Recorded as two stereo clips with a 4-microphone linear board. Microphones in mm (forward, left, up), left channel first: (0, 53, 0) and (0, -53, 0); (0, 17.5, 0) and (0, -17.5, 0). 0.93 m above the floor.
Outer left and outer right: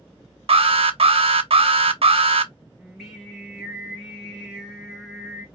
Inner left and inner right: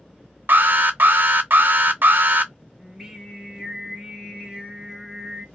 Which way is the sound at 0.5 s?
65° right (ahead or behind).